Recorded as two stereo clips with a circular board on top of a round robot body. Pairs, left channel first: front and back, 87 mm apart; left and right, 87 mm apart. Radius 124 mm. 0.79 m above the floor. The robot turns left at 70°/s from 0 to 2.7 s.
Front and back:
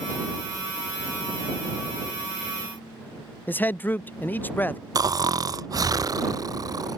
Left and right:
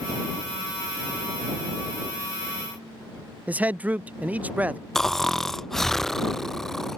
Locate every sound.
3.5 s a man speaking: 40° right
5.0 s snoring: 175° left